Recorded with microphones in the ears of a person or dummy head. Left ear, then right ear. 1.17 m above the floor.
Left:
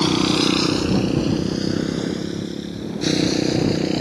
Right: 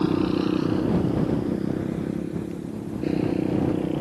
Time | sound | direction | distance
0.0 | a motorcycle | 80° left | ?